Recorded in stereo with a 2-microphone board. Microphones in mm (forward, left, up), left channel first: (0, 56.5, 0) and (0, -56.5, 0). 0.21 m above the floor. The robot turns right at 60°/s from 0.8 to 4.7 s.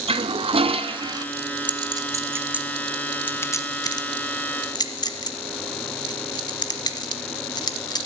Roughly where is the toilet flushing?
Right.